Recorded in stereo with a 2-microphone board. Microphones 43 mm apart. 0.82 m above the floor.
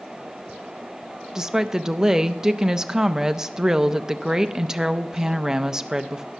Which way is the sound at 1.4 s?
15° right (ahead or behind).